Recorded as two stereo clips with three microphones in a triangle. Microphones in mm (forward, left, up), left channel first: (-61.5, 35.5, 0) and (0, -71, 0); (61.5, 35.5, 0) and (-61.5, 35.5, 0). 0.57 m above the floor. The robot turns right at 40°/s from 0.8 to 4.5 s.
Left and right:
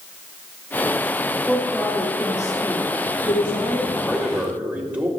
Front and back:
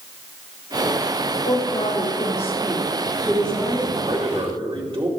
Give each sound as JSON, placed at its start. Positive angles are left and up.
{"t": 1.4, "sound": "a woman speaking", "azimuth_deg": 30, "distance_m": 2.5}
{"t": 3.9, "sound": "a man speaking", "azimuth_deg": -160, "distance_m": 2.5}